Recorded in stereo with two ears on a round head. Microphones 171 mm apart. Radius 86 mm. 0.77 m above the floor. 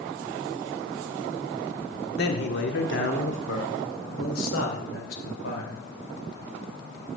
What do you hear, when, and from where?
2.2 s a man speaking: 55° left (ahead or behind), 2.5 m; by 5.8 s 75° left (ahead or behind), 4 m